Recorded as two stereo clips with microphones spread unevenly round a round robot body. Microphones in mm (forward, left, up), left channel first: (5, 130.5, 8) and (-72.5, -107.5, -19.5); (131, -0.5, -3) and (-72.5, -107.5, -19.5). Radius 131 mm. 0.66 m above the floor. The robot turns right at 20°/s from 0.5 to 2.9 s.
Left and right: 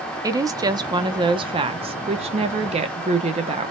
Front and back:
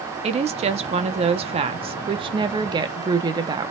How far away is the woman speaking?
About 0.6 m.